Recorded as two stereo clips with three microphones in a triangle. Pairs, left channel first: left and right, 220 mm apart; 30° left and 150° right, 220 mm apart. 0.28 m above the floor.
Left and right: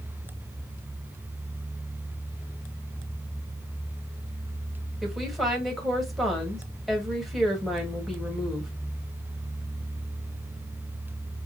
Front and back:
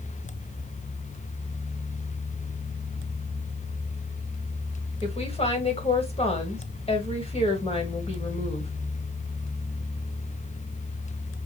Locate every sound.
5.0 s a woman speaking: straight ahead, 1.6 m